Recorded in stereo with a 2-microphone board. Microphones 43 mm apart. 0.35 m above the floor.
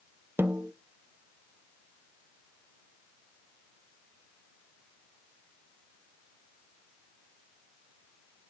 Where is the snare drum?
60° right (ahead or behind), 0.6 m.